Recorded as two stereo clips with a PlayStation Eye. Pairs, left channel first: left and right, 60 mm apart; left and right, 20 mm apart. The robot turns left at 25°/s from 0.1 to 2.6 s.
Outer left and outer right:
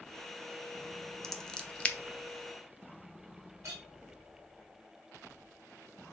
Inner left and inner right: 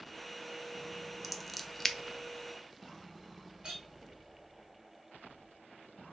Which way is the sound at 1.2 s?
5° left (ahead or behind).